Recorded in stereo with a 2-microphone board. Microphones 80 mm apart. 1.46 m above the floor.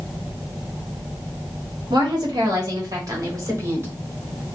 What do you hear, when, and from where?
1.9 s a woman speaking: 70° right (ahead or behind), 1.8 m; by 3.9 s 30° right (ahead or behind), 1.7 m